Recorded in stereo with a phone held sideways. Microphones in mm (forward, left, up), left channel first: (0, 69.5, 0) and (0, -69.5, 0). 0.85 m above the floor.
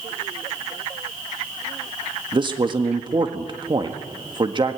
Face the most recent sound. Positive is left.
turn(degrees=-35)  # may be behind; listen again after turning